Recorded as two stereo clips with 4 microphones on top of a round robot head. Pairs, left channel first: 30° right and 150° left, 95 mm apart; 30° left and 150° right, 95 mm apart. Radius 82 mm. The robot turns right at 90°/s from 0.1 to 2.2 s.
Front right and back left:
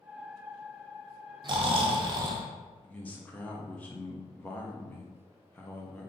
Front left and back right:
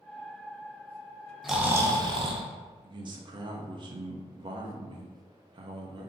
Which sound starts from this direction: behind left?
Snoring, at 1.4 s.